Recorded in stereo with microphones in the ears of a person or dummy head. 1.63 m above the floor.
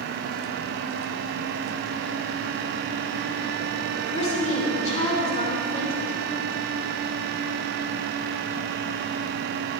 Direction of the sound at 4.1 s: 40° left (ahead or behind).